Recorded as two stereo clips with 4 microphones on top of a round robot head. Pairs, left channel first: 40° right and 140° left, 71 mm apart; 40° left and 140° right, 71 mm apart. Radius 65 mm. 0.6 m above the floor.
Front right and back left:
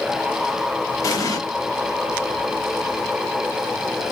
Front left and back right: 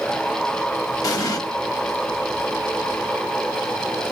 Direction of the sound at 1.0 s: Straight ahead.